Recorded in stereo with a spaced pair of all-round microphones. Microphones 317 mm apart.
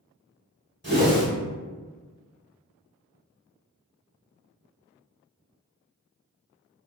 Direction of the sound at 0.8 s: 35° right (ahead or behind).